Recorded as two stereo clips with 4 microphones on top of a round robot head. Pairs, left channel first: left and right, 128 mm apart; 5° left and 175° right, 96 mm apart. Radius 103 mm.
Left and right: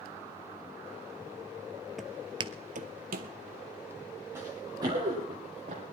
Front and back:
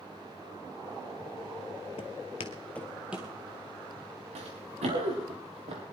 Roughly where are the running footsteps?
Behind.